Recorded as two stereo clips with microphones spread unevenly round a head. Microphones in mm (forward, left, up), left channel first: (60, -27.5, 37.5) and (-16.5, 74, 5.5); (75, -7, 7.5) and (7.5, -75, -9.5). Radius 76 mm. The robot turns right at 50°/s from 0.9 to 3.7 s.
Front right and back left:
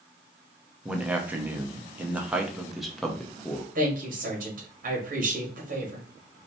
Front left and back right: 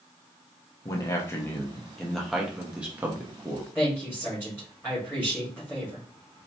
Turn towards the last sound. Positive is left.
turn(degrees=125)